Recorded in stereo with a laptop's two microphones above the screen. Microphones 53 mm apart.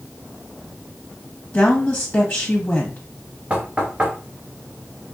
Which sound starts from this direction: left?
A woman speaking, at 1.5 s.